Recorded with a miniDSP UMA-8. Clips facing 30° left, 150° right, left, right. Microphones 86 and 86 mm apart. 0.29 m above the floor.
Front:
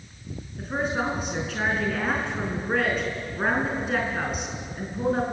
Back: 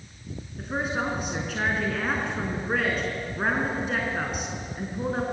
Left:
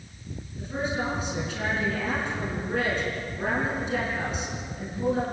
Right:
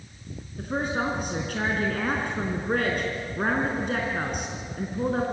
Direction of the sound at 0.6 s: 60° right.